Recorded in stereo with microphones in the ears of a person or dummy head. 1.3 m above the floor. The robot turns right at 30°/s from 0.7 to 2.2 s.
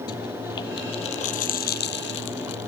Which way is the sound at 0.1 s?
25° left.